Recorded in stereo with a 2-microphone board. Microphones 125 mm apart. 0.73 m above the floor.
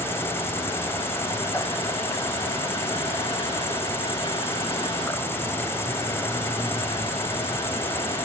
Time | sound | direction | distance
0.0 | an insect | 20° left (ahead or behind) | 1.1 m